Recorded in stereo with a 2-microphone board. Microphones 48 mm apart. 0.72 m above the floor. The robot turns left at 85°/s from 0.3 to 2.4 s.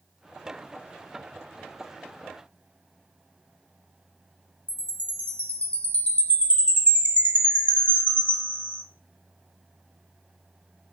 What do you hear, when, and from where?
4.7 s a chime: 30° left (ahead or behind), 0.8 m